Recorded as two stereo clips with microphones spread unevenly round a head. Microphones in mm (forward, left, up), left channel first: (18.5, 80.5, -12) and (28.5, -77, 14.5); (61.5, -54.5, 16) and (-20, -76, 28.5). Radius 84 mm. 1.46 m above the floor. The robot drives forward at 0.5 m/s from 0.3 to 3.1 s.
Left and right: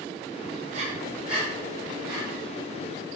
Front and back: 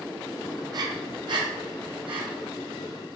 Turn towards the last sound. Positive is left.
turn(degrees=-160)